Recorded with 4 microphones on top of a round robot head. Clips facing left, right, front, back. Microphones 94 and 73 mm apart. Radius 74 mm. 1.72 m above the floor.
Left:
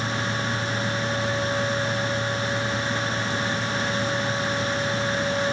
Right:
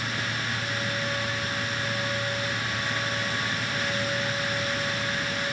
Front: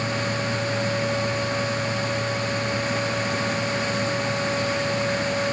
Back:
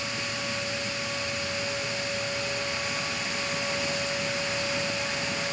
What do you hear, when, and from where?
Only background noise.